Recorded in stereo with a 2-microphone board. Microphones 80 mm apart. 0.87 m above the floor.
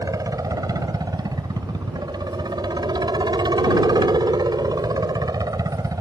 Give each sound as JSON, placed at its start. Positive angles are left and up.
{"t": 0.0, "sound": "a helicopter", "side_deg": -50}